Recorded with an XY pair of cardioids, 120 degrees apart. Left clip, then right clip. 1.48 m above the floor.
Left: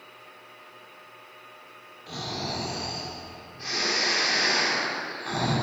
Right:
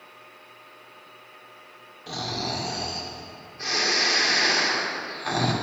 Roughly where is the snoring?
Ahead right.